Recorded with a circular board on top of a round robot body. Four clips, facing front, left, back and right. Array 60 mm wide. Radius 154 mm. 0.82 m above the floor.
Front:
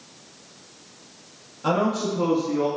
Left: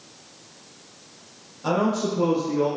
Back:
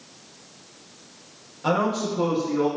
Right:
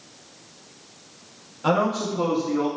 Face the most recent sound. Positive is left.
turn(degrees=-115)